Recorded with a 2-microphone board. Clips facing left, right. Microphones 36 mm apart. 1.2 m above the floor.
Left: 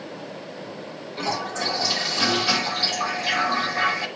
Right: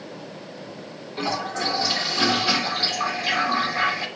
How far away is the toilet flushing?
About 3 m.